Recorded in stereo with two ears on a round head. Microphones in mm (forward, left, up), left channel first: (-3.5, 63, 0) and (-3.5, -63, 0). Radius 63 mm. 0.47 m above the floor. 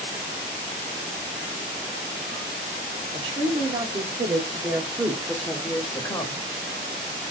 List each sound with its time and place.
3.1 s a woman speaking: 40° right (ahead or behind), 1.5 m; by 6.4 s 30° left (ahead or behind), 1.1 m